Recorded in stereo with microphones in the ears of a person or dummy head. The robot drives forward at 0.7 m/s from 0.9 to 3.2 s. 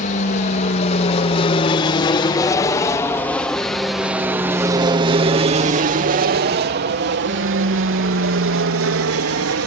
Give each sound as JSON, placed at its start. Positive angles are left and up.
{"t": 0.0, "sound": "an aircraft", "side_deg": 40}